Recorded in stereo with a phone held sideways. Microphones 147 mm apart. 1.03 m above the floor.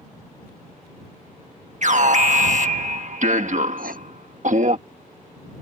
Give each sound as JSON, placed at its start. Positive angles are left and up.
{"t": 1.8, "sound": "an alarm", "side_deg": -55}
{"t": 3.8, "sound": "writing", "side_deg": -75}